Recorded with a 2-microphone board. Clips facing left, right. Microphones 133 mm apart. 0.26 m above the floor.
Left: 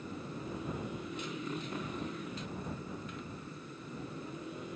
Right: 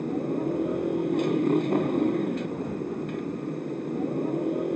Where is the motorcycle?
60° right (ahead or behind).